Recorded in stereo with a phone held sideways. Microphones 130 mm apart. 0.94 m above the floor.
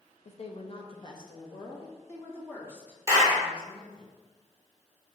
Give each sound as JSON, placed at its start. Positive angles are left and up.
{"t": 0.2, "sound": "a woman speaking", "side_deg": 55, "distance_m": 0.9}
{"t": 3.1, "sound": "a clap", "side_deg": -20, "distance_m": 1.7}